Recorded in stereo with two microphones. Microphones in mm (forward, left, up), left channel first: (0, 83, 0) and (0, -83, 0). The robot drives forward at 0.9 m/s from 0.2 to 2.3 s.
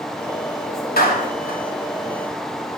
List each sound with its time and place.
1.0 s a clap: 80° left, 3 m; by 1.6 s 85° left, 3 m